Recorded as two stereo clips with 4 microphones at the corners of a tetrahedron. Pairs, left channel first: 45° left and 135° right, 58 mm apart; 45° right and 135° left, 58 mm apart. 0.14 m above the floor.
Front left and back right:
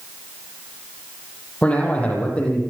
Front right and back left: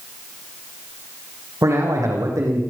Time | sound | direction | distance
1.6 | a man speaking | 110° left | 7 m